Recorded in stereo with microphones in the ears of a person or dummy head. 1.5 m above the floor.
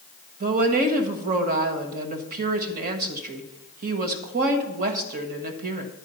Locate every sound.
0.4 s a woman speaking: 50° right (ahead or behind), 1.4 m